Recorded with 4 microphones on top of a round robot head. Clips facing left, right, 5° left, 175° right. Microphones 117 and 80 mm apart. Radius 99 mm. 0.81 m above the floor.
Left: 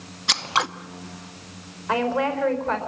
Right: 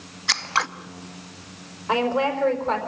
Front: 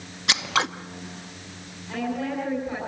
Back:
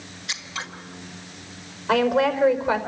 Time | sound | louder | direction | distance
0.3 | scissors | left 1 dB, front 10 dB | 20° left | 0.9 m
1.9 | a woman speaking | right 1 dB, back 9 dB | 160° right | 4.5 m